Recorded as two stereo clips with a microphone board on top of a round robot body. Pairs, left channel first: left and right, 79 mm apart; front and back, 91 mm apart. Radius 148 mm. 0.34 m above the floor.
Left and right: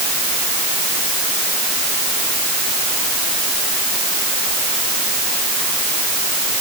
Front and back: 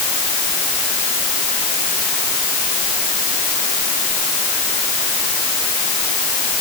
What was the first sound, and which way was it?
Only background noise.